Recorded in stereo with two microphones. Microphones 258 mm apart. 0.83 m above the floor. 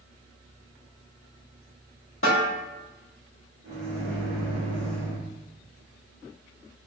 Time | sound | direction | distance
2.2 | a snare drum | 55° left (ahead or behind) | 1.2 m
3.6 | a microwave | 45° right (ahead or behind) | 1.4 m